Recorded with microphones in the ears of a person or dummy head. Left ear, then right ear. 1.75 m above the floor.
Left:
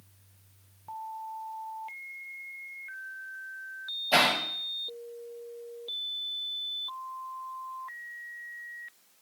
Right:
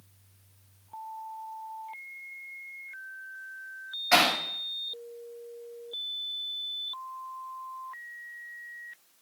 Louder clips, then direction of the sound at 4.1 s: Right 1 dB; 60° right (ahead or behind).